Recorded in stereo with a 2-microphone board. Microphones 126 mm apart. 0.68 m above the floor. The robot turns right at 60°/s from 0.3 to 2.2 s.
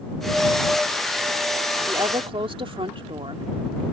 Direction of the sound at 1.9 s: 30° right (ahead or behind).